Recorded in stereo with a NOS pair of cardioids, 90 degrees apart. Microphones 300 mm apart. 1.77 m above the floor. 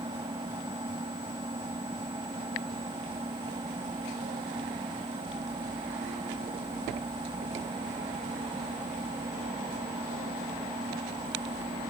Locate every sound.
0.0 s an engine running: 15° right